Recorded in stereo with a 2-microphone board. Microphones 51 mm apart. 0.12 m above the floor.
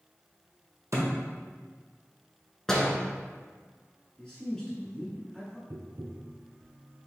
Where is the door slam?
5° left (ahead or behind), 1.1 m.